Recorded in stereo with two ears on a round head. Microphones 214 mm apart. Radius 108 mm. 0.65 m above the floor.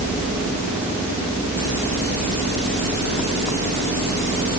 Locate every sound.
Only background noise.